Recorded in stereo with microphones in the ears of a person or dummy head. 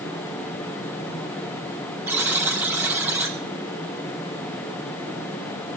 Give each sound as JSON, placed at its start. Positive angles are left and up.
{"t": 2.1, "sound": "a buzzer", "side_deg": -10, "distance_m": 0.8}